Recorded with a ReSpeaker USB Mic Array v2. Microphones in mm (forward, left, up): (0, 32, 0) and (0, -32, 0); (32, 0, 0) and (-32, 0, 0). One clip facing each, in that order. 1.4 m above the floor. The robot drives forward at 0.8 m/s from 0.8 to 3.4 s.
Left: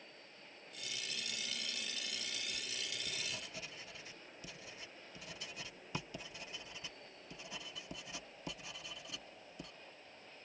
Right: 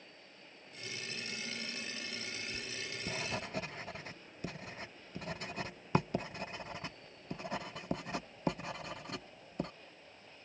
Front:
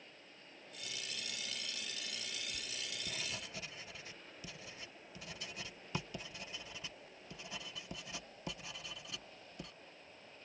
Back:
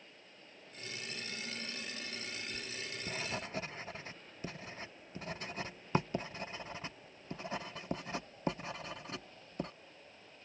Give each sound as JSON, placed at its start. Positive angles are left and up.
{"t": 2.5, "sound": "writing", "azimuth_deg": -80}